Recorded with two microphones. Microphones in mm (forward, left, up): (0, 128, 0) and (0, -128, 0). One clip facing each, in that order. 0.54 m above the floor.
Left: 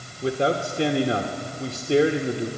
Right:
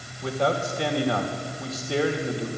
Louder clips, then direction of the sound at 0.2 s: Left 2 dB; 30° left (ahead or behind).